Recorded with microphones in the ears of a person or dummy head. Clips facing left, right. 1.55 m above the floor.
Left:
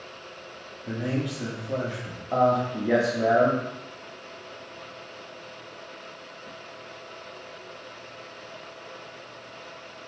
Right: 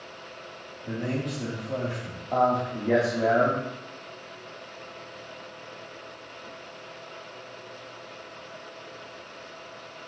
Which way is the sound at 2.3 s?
10° left (ahead or behind).